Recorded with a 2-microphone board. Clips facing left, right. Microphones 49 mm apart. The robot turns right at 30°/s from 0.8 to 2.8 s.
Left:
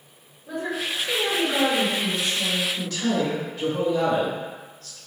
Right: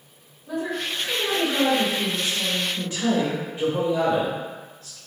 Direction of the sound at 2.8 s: 30° right (ahead or behind).